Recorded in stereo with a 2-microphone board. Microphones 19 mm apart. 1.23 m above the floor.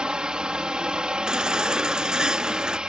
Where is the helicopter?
55° right (ahead or behind).